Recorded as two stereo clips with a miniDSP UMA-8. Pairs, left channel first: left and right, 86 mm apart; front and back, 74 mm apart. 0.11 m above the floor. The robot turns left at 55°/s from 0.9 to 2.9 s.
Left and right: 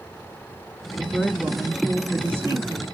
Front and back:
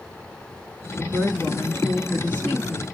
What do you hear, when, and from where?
1.0 s a woman speaking: 25° left, 1.8 m; by 2.8 s 75° right, 1.8 m